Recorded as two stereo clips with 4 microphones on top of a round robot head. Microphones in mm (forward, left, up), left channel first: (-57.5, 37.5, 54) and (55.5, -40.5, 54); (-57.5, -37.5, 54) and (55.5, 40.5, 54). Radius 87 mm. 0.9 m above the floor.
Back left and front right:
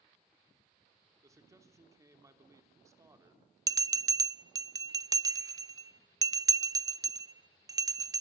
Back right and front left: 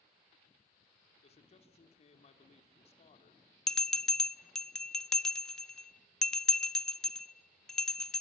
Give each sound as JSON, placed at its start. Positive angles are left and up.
{"t": 1.2, "sound": "a man speaking", "azimuth_deg": -100, "distance_m": 3.0}
{"t": 3.7, "sound": "a bell", "azimuth_deg": -65, "distance_m": 0.5}